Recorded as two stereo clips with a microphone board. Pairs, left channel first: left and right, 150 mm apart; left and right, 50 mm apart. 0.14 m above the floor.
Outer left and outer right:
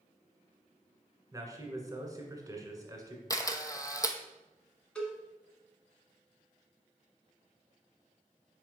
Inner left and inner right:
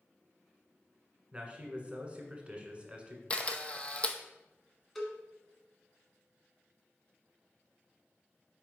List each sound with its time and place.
1.3 s a man speaking: 25° right (ahead or behind), 1.5 m
3.3 s a camera shutter: 25° left (ahead or behind), 0.7 m
5.0 s a cowbell: 5° left (ahead or behind), 1.5 m